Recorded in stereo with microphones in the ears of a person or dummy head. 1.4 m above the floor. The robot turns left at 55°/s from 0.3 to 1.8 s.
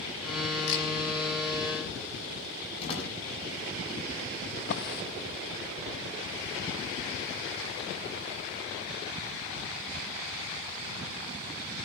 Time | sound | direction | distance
0.7 | a camera shutter | 75° left (ahead or behind) | 5 m
2.8 | a door slam | 35° left (ahead or behind) | 7 m
4.6 | a drawer | 55° left (ahead or behind) | 1.0 m